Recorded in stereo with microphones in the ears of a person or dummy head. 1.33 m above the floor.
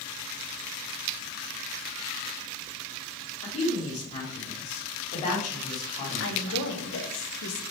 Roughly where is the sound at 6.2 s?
Left.